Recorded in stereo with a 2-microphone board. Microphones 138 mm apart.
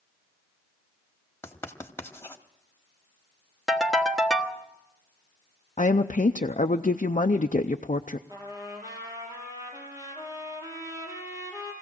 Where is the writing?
20° left (ahead or behind), 1.2 m.